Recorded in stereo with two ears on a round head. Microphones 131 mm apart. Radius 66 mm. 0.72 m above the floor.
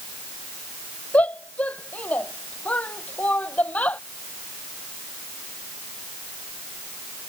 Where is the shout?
10° left (ahead or behind).